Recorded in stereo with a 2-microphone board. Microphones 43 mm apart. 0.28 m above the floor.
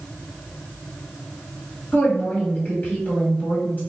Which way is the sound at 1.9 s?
45° left (ahead or behind).